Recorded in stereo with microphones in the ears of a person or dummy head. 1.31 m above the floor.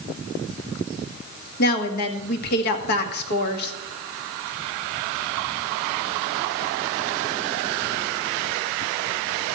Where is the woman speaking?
60° left (ahead or behind), 1.7 m.